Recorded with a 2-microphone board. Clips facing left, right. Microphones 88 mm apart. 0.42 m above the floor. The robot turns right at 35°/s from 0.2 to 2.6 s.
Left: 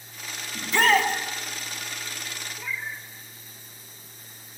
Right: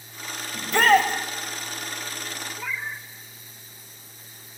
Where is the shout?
45° right (ahead or behind), 2.5 m; by 1.1 s 60° right (ahead or behind), 2.5 m.